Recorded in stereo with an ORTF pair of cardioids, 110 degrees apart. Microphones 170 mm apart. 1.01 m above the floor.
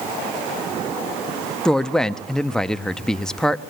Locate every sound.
1.6 s a woman speaking: 5° left, 1.0 m